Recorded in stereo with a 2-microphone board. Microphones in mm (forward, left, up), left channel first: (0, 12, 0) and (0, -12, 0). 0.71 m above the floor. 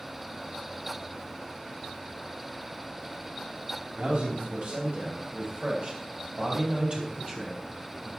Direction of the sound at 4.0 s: 75° right (ahead or behind).